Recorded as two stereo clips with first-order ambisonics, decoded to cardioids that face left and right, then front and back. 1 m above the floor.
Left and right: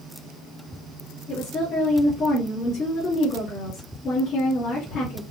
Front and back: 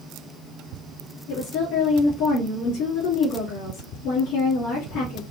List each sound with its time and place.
1.3 s a woman speaking: 30° left, 2 m